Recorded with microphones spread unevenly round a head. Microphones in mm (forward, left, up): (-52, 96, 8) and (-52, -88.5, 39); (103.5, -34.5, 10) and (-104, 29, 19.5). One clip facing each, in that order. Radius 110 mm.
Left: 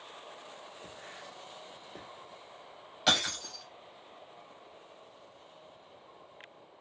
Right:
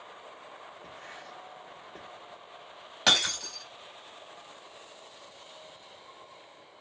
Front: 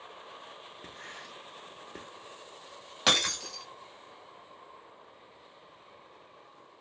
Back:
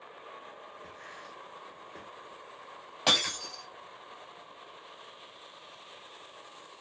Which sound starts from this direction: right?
Breaking glass, at 3.1 s.